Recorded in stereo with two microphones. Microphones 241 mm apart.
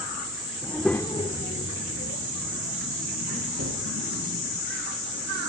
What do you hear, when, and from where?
0.6 s a child speaking: 15° right (ahead or behind), 0.9 m; by 4.6 s 80° left, 4.5 m
3.6 s a gunshot: 60° right (ahead or behind), 8.5 m